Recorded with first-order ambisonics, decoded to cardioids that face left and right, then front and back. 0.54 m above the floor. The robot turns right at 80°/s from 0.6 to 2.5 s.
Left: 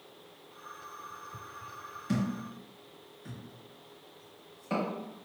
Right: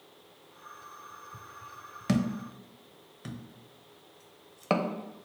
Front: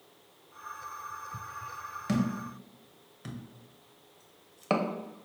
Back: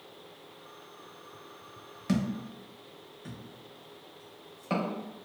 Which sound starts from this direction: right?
A thud, at 2.1 s.